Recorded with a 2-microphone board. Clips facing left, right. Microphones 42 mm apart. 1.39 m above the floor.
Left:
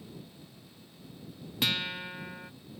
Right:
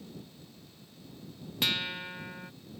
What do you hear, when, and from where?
1.6 s a guitar: centre (ahead or behind)